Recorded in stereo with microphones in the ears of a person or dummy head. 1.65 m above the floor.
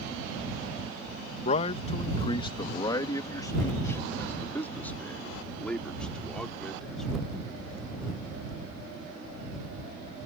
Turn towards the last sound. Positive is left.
turn(degrees=0)  # may be behind; listen again after turning